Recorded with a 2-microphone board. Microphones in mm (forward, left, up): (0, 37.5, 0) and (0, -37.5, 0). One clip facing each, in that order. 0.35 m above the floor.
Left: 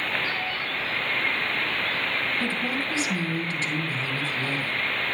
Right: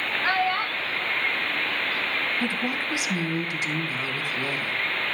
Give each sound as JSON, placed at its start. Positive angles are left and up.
{"t": 0.2, "sound": "a child speaking", "side_deg": -65, "distance_m": 1.0}
{"t": 2.4, "sound": "a woman speaking", "side_deg": -15, "distance_m": 3.0}